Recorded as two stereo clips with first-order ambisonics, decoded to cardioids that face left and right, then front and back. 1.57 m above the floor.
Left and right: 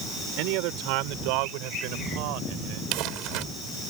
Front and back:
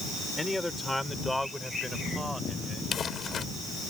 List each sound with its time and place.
0.4 s a man speaking: 85° right; by 2.8 s 90° right
2.9 s crumpling: 60° right